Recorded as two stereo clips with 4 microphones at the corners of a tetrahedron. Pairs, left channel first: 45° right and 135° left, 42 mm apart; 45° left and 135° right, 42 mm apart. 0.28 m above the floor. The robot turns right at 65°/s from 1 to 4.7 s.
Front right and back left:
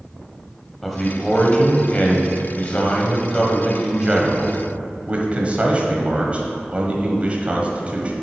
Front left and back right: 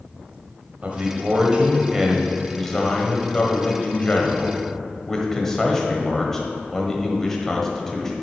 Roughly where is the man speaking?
Behind right.